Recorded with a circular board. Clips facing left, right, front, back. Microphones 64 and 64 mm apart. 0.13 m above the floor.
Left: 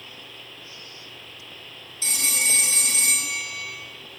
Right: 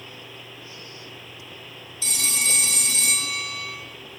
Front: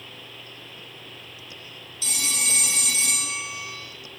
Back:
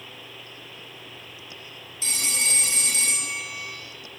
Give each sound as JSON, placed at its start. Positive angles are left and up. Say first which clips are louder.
{"t": 2.0, "sound": "a phone ringing", "louder": "left 1 dB, back 1 dB", "azimuth_deg": 135, "distance_m": 1.7}